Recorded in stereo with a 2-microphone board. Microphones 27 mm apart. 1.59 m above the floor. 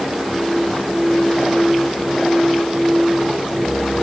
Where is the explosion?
I don't hear an explosion.